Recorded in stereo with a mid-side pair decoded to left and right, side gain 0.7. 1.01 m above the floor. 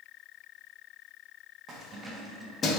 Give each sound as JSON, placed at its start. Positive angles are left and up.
{"t": 1.7, "sound": "keys jangling", "azimuth_deg": -40, "distance_m": 1.1}